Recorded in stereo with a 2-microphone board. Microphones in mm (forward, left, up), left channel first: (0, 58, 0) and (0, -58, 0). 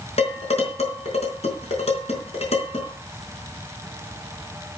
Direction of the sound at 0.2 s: 70° left (ahead or behind).